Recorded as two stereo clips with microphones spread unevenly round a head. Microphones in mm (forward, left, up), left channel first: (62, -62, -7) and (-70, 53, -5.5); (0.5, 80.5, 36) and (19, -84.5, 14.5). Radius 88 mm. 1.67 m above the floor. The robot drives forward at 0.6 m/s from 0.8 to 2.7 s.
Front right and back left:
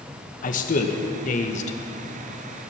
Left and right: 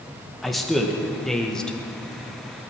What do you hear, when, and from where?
0.4 s a man speaking: 10° left, 1.8 m